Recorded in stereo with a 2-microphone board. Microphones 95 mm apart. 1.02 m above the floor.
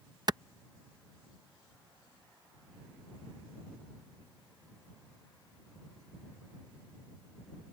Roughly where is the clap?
Right.